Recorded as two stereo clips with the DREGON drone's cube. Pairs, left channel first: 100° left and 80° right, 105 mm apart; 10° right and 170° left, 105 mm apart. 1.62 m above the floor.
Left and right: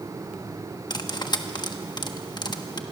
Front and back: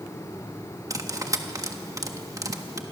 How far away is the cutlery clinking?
About 1.2 m.